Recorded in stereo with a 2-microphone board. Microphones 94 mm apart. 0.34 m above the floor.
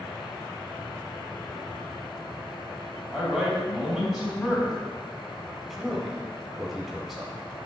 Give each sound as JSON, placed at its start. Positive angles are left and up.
{"t": 3.1, "sound": "a man speaking", "side_deg": -5, "distance_m": 2.5}
{"t": 5.7, "sound": "a man speaking", "side_deg": -5, "distance_m": 1.5}